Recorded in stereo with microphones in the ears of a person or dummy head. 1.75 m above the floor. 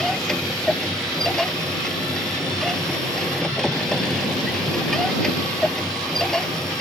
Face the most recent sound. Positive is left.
turn(degrees=5)  # may be behind; listen again after turning